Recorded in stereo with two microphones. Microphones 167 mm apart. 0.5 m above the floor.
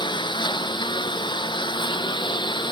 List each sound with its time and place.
0.0 s a lawn mower: 30° left (ahead or behind)